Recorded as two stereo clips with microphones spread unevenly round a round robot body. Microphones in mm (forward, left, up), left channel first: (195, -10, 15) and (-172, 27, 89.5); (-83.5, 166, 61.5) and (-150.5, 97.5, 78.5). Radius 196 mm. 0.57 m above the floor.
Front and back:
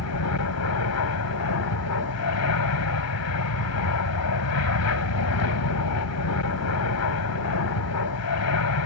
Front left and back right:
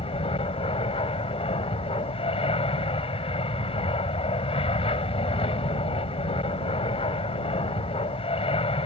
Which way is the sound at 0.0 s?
35° left.